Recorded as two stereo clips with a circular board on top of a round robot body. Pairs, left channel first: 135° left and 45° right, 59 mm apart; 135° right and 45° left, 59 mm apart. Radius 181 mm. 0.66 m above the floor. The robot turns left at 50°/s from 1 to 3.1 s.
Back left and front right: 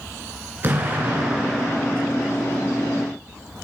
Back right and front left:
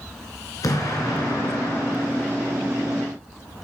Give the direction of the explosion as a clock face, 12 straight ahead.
3 o'clock.